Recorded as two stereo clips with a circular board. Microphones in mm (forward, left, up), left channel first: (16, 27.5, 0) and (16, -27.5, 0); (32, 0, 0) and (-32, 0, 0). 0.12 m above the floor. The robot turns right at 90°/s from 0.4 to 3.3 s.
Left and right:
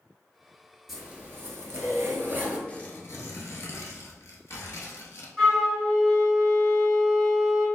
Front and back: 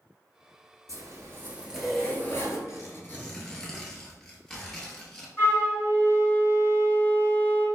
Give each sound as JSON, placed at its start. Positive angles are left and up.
{"t": 0.9, "sound": "a zipper", "azimuth_deg": -175, "distance_m": 1.0}
{"t": 2.7, "sound": "tearing paper", "azimuth_deg": 25, "distance_m": 0.8}
{"t": 5.4, "sound": "a flute", "azimuth_deg": -5, "distance_m": 1.7}